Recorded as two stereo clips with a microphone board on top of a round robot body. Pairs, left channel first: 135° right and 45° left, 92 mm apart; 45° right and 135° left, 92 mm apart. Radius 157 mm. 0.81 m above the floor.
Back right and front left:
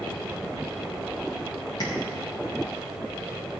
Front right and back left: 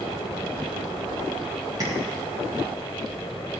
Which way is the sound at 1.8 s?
175° right.